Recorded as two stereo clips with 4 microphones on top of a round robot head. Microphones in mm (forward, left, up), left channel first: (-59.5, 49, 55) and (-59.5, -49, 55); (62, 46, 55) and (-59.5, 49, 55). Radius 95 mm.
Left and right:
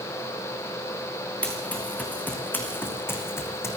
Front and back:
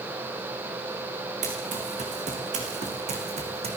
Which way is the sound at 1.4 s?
165° left.